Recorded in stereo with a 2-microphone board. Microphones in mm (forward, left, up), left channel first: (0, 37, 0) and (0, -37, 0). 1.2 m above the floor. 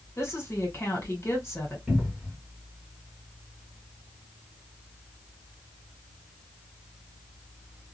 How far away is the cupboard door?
About 1.5 m.